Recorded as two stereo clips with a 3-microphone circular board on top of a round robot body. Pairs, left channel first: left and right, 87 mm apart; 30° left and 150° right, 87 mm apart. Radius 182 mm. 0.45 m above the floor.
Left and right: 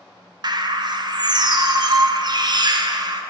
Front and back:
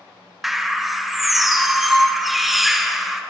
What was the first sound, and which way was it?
A bird, 60° right.